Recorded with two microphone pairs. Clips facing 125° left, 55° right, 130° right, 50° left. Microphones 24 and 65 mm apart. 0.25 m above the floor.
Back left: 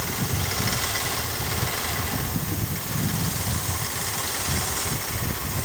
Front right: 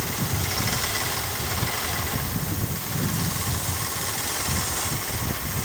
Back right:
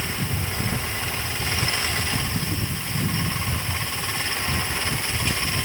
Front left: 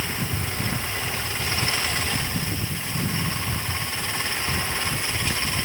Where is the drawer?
No drawer in this recording.